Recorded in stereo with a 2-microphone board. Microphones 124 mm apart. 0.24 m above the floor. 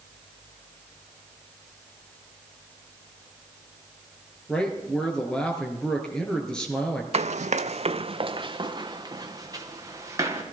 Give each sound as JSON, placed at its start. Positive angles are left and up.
{"t": 4.5, "sound": "a man speaking", "side_deg": 5, "distance_m": 4.0}
{"t": 7.1, "sound": "running footsteps", "side_deg": -60, "distance_m": 0.7}